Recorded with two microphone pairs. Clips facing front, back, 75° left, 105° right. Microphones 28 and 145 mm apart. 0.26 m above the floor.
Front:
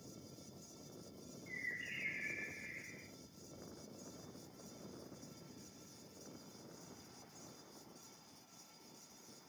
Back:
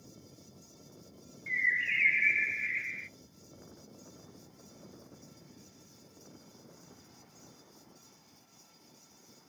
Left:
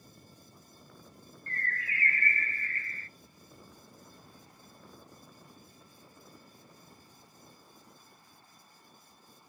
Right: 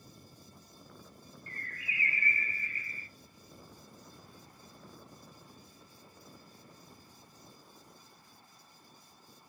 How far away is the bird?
About 0.6 m.